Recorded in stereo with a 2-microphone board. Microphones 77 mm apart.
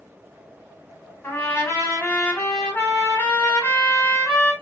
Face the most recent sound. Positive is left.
turn(degrees=35)  # may be behind; listen again after turning